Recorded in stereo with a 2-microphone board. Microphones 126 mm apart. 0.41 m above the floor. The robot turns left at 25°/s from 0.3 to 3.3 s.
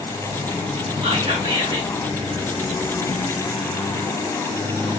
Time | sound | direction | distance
1.0 | whispering | 40° right (ahead or behind) | 1.7 m